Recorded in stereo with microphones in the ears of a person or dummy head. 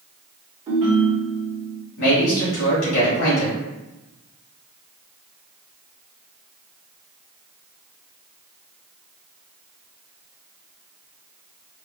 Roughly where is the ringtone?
Right.